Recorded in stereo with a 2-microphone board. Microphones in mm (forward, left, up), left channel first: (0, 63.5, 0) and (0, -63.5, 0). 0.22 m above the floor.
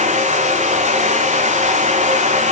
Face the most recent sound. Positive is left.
turn(degrees=-65)  # may be behind; listen again after turning